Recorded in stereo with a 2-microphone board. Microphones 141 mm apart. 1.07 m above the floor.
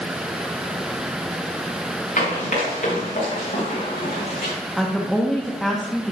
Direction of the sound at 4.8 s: Centre (ahead or behind).